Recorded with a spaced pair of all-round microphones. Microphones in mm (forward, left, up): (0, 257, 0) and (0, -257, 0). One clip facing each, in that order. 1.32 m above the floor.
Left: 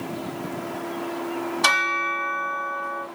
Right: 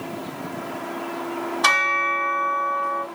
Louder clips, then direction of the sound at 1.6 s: Right 1 dB; 45° left (ahead or behind).